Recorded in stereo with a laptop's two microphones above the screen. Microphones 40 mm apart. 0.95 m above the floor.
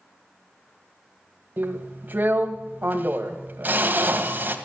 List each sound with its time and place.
1.6 s a drill: 45° right (ahead or behind), 2.0 m